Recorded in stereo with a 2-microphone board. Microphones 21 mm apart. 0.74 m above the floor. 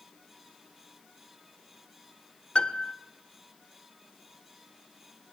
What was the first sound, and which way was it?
A piano, 50° left (ahead or behind).